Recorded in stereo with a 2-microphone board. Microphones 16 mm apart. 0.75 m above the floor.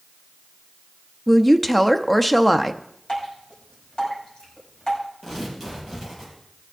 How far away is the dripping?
About 5 m.